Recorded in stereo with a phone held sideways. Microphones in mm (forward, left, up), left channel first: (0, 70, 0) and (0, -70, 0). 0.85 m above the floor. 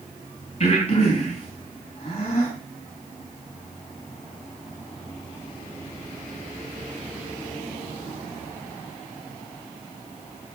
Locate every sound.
0.6 s breathing: 45° left (ahead or behind), 4.5 m